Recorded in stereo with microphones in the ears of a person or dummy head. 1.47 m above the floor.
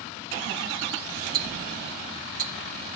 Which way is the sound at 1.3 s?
50° right (ahead or behind).